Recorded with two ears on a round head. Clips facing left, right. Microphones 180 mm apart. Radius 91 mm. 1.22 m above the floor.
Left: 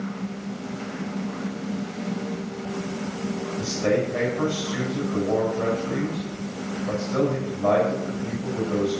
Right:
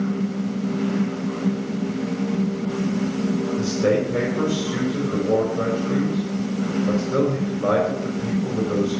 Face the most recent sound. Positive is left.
turn(degrees=-70)  # may be behind; listen again after turning